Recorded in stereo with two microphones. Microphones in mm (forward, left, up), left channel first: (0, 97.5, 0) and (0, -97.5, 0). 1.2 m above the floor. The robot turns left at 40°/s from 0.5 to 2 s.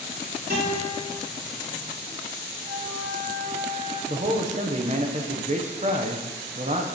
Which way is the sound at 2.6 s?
50° right (ahead or behind).